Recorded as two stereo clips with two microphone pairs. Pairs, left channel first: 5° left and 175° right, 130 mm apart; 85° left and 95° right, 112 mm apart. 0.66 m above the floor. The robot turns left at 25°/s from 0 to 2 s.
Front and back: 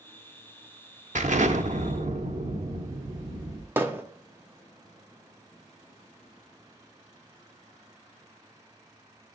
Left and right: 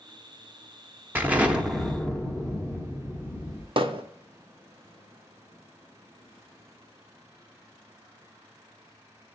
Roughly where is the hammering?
Right.